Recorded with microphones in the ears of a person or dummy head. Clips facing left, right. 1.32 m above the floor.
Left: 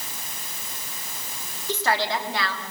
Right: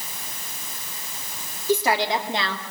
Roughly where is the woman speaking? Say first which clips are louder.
Right 4 dB; centre.